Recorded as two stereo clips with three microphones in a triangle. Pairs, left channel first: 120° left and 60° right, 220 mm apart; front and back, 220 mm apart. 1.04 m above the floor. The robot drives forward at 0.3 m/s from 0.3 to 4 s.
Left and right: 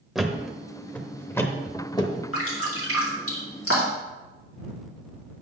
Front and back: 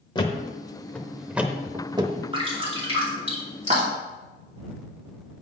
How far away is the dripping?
About 2.5 m.